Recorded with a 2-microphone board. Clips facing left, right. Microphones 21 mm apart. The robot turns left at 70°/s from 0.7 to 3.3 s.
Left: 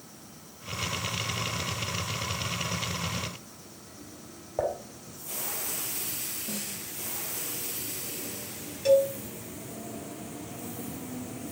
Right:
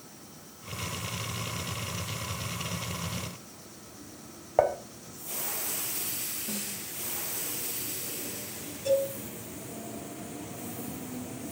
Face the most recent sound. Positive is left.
turn(degrees=65)  # may be behind; listen again after turning